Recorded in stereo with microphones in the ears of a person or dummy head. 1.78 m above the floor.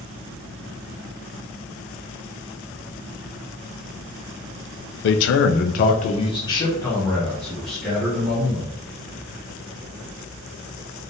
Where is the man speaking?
60° left (ahead or behind), 0.5 m; by 8.8 s centre (ahead or behind), 1.7 m.